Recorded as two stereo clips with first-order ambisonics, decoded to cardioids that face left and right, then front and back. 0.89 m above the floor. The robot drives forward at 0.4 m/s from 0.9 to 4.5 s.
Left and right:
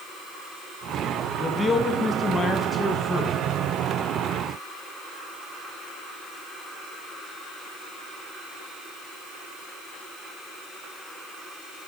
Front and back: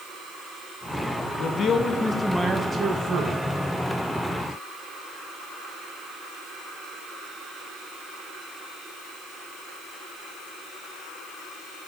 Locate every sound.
1.4 s a man speaking: 20° left, 0.6 m; by 3.4 s 160° left, 0.6 m